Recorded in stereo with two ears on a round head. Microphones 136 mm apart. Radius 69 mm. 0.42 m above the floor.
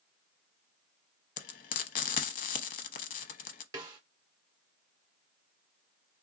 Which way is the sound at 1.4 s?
60° left (ahead or behind).